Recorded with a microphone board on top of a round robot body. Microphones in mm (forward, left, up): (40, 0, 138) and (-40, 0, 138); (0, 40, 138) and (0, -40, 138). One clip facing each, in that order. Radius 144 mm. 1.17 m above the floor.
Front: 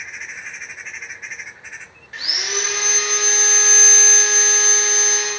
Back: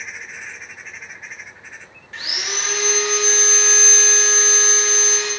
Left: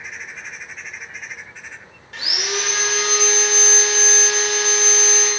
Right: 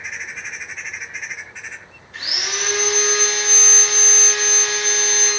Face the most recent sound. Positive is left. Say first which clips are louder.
# front 1 dB, left 2 dB
turn(degrees=80)